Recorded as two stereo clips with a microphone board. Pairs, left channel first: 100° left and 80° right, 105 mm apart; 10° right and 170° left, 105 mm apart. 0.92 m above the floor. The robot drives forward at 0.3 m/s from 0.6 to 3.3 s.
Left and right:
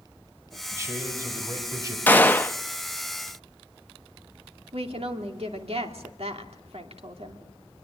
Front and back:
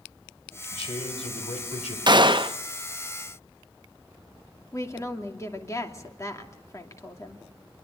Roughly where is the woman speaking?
Right.